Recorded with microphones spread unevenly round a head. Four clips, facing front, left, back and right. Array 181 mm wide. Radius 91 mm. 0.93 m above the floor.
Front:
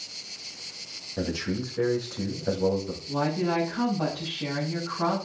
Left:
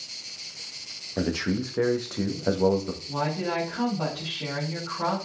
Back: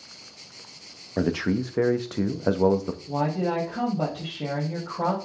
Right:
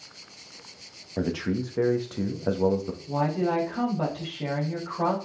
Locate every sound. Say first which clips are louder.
1.2 s a man speaking: left 1 dB, back 5 dB; straight behind, 1.2 m
3.1 s a woman speaking: right 4 dB, back 1 dB; 150° right, 4 m